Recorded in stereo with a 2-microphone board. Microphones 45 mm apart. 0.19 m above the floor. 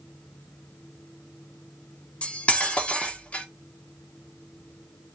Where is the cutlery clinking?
30° left (ahead or behind), 0.9 m.